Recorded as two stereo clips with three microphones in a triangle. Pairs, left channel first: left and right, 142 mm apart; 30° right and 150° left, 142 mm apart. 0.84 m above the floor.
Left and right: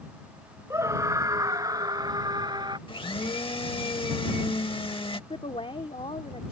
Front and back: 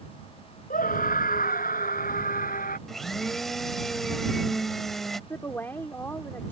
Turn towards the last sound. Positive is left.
turn(degrees=45)